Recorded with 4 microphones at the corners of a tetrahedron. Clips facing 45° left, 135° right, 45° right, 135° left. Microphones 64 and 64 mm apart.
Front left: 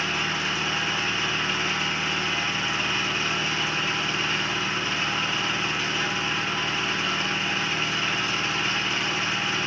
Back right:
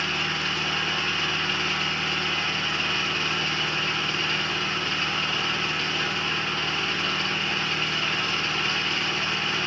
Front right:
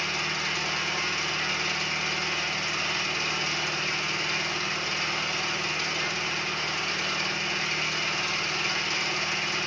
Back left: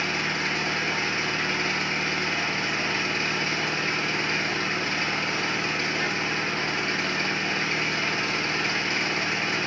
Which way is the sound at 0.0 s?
125° left.